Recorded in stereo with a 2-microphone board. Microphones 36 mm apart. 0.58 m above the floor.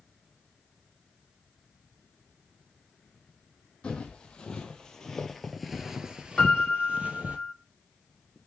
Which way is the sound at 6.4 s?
20° left (ahead or behind).